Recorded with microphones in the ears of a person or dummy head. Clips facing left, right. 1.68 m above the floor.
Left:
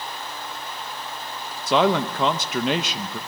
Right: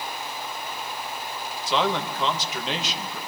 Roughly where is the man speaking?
Left.